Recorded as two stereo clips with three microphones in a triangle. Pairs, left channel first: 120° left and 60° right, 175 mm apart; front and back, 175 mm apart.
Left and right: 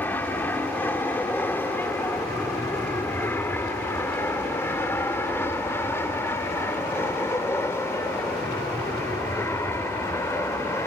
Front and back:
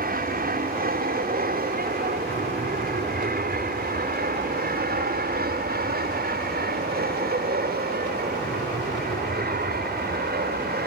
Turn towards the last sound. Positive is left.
turn(degrees=-165)